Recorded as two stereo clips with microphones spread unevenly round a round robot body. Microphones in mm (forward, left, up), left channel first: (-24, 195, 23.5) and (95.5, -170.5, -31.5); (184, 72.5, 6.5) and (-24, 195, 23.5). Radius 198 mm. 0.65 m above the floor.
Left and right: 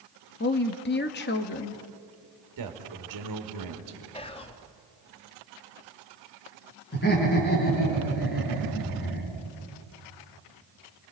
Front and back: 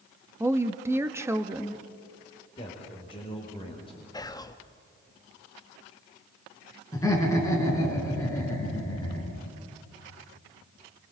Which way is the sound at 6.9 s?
45° left.